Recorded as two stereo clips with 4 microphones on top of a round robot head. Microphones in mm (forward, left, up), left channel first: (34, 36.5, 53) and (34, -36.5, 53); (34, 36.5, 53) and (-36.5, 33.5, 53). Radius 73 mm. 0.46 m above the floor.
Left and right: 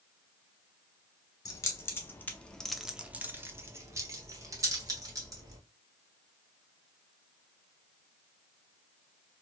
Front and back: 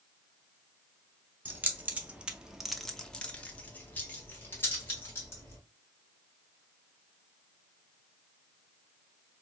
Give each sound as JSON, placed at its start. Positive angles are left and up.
{"t": 1.4, "sound": "keys jangling", "azimuth_deg": 125, "distance_m": 1.0}